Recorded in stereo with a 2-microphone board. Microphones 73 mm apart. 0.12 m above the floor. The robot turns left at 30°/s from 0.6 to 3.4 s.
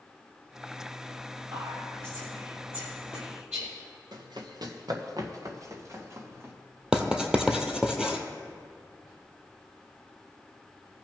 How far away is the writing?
About 1.0 m.